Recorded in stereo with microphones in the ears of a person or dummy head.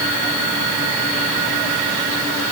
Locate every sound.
Only background noise.